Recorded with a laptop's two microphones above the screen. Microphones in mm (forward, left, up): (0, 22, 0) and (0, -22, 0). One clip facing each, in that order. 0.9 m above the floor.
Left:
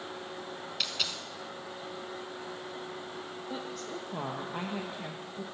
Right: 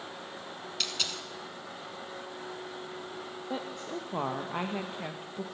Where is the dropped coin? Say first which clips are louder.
Even; 5° left (ahead or behind), 1.0 m.